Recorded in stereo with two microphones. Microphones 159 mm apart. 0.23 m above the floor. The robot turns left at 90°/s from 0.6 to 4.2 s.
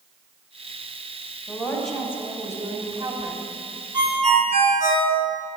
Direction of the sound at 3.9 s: 25° right (ahead or behind).